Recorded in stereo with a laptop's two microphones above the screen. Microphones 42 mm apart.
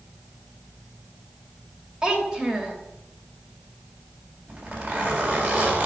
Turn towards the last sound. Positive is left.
turn(degrees=-40)  # may be behind; listen again after turning